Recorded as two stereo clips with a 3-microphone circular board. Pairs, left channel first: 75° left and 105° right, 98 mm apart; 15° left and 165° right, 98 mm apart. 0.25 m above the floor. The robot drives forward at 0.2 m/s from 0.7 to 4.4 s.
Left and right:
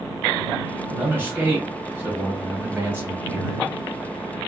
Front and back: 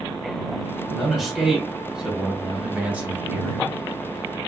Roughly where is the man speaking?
Right.